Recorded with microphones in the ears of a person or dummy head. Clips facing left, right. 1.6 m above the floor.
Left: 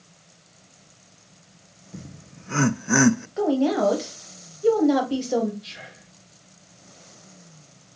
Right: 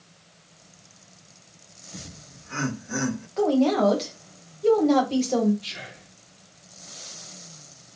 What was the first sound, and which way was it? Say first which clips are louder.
Laughter: left 3 dB; 25° left (ahead or behind).